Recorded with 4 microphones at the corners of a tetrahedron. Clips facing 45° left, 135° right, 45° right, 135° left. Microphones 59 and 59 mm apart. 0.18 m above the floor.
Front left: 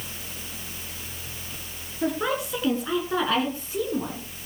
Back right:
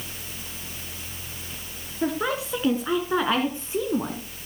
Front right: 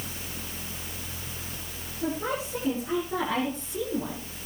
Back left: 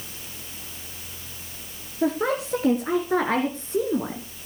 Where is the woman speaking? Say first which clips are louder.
Even, back left 6 dB; 145° left, 3 m; by 4.2 s 175° left, 2 m.